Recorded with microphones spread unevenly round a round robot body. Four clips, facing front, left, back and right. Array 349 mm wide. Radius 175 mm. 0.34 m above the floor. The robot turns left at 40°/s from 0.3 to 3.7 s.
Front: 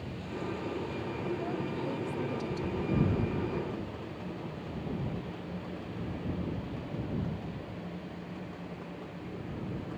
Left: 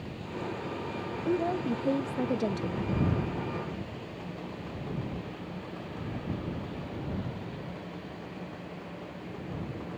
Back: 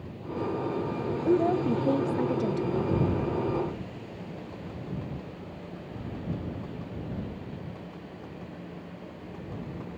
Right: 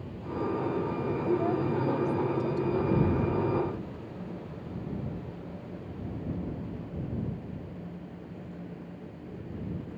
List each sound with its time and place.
1.2 s a woman speaking: 170° left; by 3.0 s 100° left